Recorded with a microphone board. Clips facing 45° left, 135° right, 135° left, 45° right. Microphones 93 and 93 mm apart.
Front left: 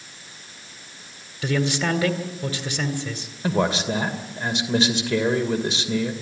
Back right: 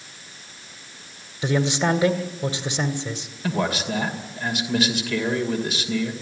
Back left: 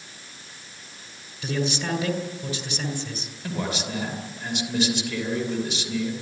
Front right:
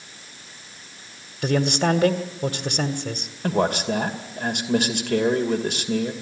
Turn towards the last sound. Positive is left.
turn(degrees=-15)